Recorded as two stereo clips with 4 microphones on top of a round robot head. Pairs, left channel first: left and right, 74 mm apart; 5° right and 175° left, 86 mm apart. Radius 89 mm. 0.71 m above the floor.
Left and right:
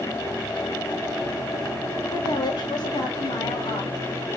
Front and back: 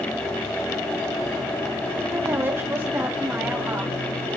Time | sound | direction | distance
2.1 | a woman speaking | 115° left | 2.5 m